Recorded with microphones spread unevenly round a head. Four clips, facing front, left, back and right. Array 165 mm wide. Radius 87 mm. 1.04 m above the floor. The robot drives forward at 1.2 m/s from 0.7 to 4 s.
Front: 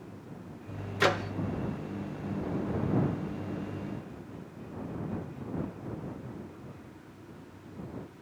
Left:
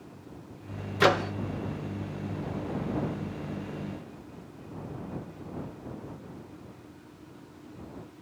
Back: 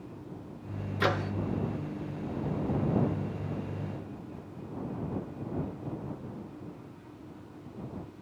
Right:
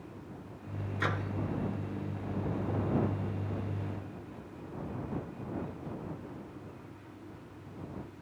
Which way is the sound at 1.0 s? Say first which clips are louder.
Left 12 dB, front 2 dB; 70° left.